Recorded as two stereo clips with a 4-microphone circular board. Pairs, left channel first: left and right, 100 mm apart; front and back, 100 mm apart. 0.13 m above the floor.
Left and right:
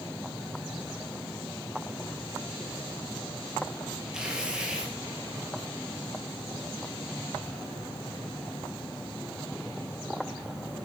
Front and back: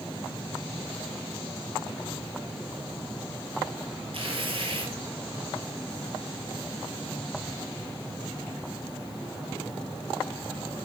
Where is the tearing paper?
170° right, 3.5 m.